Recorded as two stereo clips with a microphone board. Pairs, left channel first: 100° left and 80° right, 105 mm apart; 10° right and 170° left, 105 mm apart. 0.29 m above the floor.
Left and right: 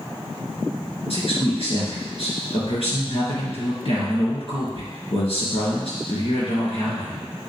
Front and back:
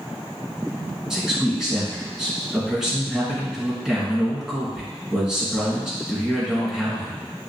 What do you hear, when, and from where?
1.1 s a man speaking: 85° left, 3 m